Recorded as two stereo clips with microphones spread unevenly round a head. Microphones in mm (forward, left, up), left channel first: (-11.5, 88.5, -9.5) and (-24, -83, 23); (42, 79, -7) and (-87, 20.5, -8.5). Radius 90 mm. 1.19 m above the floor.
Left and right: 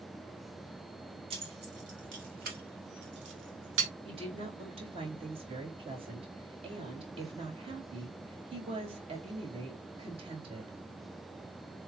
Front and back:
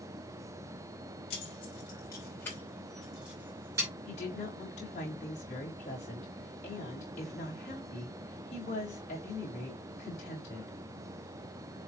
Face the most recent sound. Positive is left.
turn(degrees=-30)